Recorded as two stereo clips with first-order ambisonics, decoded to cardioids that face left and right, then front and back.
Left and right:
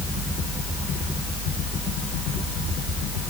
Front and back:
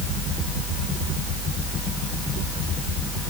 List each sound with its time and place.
Only background noise.